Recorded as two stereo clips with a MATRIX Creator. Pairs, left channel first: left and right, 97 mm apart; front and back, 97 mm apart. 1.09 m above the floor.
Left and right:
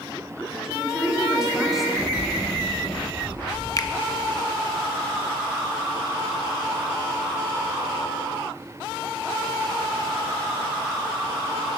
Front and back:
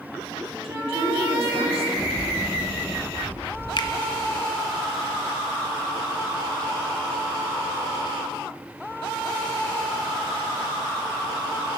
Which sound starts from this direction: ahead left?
A finger snap, at 3.8 s.